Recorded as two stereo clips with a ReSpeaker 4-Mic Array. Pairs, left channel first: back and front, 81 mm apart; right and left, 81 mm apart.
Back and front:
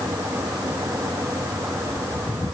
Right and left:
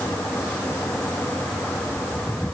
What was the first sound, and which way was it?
Only background noise.